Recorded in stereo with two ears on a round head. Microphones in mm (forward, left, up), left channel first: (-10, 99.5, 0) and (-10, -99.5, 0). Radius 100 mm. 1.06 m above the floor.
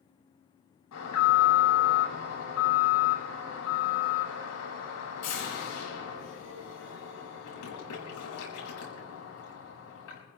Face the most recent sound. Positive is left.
turn(degrees=85)